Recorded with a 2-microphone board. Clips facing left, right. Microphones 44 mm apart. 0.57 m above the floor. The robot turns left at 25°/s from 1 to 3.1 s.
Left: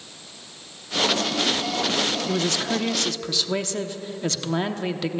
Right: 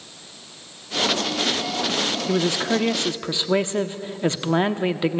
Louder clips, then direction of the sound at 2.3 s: Right 3 dB; 15° right (ahead or behind).